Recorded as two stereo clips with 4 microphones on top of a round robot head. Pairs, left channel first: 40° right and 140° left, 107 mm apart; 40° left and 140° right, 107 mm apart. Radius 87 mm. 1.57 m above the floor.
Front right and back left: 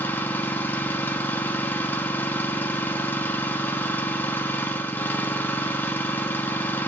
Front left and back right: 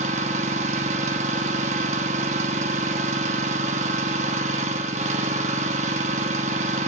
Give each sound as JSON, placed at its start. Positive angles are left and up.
{"t": 0.0, "sound": "an engine running", "azimuth_deg": -115, "distance_m": 1.0}